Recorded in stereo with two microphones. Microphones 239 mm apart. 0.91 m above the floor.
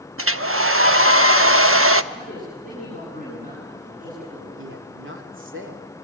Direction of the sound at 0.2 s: 65° right (ahead or behind).